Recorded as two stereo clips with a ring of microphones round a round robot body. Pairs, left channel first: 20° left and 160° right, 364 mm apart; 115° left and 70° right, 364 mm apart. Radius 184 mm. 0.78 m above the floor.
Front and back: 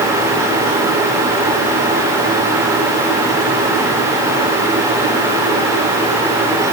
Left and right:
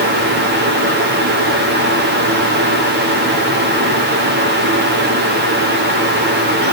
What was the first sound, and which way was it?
Only background noise.